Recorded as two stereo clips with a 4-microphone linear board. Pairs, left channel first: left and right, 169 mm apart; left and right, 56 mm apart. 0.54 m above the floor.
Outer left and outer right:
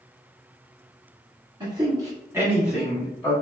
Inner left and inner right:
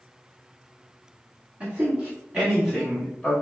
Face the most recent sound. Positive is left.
turn(degrees=10)  # may be behind; listen again after turning